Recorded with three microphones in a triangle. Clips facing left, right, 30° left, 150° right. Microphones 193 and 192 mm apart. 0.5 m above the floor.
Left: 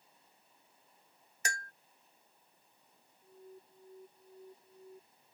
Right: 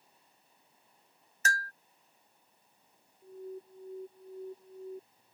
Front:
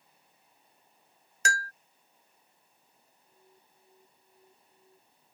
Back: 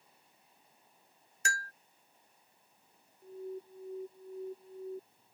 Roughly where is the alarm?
Behind right.